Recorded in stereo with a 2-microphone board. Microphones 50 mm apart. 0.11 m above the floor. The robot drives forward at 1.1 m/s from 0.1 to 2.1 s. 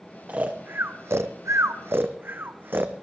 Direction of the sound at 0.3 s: 35° right (ahead or behind).